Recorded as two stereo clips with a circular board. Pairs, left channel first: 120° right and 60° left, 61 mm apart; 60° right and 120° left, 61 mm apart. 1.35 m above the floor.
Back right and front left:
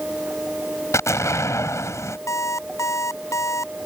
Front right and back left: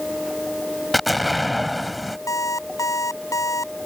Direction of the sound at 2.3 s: 85° right.